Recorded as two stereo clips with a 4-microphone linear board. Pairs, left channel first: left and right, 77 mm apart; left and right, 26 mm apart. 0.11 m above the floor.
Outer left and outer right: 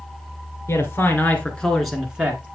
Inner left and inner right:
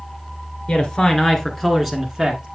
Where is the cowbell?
No cowbell in this recording.